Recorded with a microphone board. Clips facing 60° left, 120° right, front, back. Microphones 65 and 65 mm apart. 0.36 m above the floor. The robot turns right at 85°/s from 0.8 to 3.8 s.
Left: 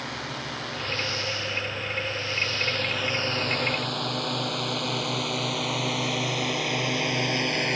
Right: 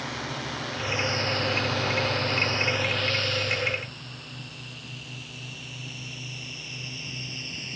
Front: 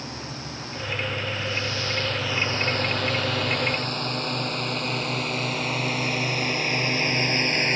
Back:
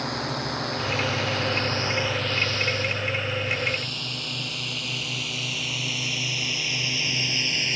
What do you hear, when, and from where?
0.0 s a drone: 150° left; by 7.8 s 45° left